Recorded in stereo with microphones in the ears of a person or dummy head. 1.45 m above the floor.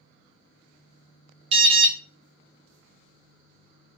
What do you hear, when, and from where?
1.5 s an alarm: 30° right (ahead or behind), 0.5 m